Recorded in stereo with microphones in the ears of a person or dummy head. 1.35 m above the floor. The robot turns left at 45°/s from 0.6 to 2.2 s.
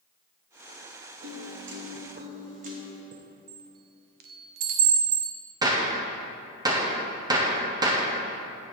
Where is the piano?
90° right, 1.1 m; by 3.0 s 135° right, 1.1 m.